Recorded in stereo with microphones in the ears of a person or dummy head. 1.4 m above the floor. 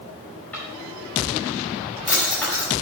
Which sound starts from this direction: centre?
A drawer, at 0.5 s.